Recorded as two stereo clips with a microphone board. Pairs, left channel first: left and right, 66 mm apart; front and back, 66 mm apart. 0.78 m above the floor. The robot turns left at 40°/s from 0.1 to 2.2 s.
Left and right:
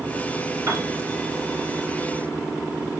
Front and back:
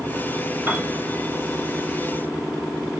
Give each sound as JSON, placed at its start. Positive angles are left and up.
{"t": 0.7, "sound": "a piano", "azimuth_deg": -125, "distance_m": 4.5}